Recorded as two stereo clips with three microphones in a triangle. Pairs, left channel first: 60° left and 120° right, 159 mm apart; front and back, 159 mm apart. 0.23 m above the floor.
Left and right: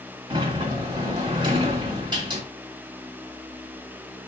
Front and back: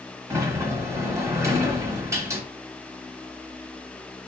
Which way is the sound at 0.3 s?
130° right.